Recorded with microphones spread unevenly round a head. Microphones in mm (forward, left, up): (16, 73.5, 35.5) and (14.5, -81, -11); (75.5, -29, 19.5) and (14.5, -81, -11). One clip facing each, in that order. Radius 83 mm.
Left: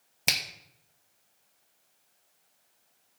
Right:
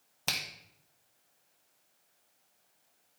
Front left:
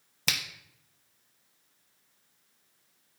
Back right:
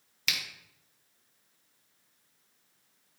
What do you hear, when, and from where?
0.3 s a finger snap: 35° left, 0.9 m